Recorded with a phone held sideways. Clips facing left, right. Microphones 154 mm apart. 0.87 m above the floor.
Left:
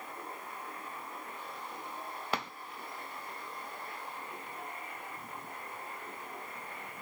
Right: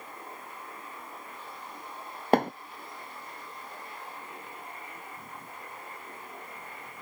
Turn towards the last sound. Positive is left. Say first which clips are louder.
# right 14 dB
turn(degrees=-50)  # may be behind; listen again after turning